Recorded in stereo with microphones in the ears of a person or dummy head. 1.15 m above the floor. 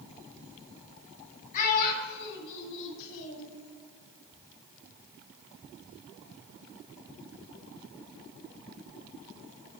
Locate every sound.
1.5 s a child speaking: 45° left (ahead or behind), 1.7 m; by 3.5 s 85° left, 1.5 m